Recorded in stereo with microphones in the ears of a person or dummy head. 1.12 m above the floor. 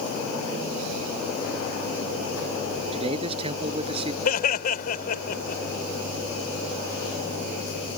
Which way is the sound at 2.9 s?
35° right (ahead or behind).